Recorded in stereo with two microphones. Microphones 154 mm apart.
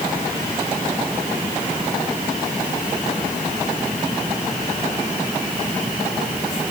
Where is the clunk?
I don't hear a clunk.